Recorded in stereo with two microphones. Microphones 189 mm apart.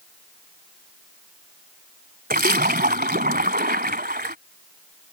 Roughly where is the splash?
Right.